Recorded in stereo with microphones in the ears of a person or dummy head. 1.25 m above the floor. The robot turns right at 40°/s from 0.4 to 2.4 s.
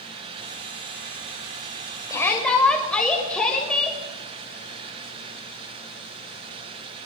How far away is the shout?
About 6 m.